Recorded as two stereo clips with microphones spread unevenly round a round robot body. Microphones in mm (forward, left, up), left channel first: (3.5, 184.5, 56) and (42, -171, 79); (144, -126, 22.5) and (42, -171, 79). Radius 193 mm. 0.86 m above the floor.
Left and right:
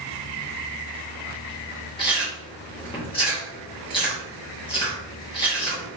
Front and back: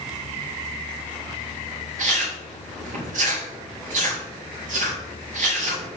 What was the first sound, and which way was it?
Chewing, 170° left.